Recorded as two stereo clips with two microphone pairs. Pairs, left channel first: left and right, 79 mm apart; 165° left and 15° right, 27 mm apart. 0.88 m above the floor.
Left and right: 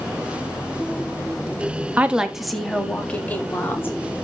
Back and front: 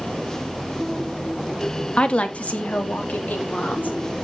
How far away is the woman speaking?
About 1.6 m.